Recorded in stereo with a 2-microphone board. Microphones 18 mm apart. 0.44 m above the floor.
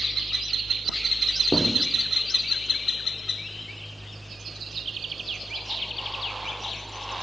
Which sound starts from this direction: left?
Writing, at 1.5 s.